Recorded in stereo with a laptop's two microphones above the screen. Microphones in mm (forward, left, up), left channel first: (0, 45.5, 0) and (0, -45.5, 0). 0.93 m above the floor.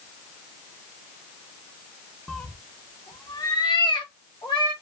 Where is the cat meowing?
Centre (ahead or behind), 0.6 m; by 4.7 s 70° left (ahead or behind), 1.1 m.